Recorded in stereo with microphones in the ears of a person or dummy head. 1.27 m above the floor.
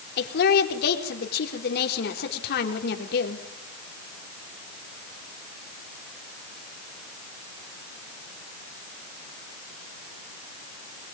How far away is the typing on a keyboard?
No typing on a keyboard in this recording.